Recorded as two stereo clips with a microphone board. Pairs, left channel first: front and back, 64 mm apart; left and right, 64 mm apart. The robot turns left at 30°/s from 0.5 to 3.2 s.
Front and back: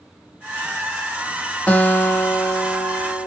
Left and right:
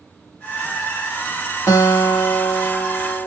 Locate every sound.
1.7 s a guitar: 65° left, 0.9 m; by 3.3 s 20° left, 0.9 m